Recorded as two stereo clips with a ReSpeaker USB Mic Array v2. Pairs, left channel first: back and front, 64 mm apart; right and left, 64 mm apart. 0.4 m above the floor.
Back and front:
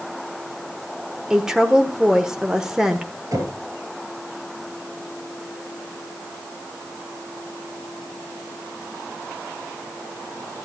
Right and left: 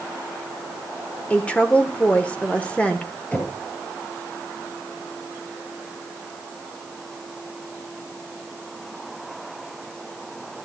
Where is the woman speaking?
65° right, 1.2 m.